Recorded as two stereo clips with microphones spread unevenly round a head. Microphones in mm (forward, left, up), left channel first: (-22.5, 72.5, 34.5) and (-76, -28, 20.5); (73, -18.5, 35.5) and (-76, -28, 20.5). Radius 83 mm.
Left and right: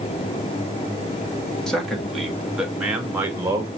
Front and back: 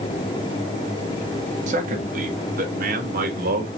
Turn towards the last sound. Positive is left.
turn(degrees=180)